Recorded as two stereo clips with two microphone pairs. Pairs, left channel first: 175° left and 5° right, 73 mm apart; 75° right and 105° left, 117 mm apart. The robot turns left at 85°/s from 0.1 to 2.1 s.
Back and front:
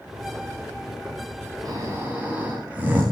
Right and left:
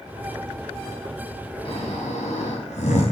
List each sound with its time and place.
1.6 s snoring: 40° right, 7 m; by 3.0 s 75° right, 7 m